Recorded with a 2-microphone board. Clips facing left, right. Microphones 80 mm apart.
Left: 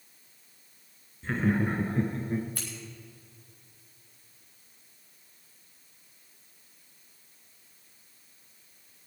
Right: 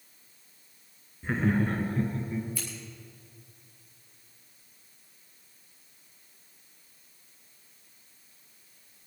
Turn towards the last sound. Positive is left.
turn(degrees=55)  # may be behind; listen again after turning